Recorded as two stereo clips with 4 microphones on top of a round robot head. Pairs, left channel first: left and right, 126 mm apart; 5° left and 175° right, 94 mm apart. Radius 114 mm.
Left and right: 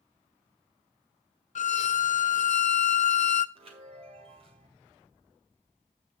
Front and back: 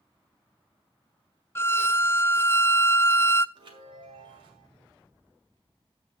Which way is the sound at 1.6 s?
70° left.